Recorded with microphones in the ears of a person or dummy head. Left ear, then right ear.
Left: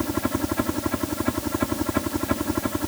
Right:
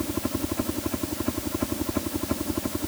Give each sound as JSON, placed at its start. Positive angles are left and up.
{"t": 0.0, "sound": "a helicopter", "side_deg": 65}